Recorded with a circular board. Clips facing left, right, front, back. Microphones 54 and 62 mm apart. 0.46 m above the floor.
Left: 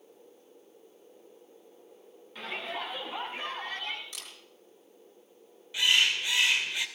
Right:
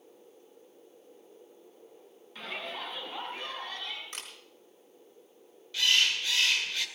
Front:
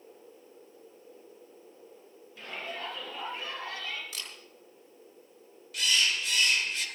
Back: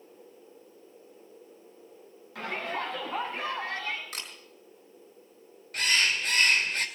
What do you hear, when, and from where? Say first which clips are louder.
2.4 s a shout: left 2 dB, back 6 dB; straight behind, 3.5 m; by 4.0 s 145° left, 3.5 m
4.1 s a camera shutter: right 3 dB, back 2 dB; 135° right, 4.5 m
5.7 s a bird: left 1 dB, back 2 dB; 155° left, 1.9 m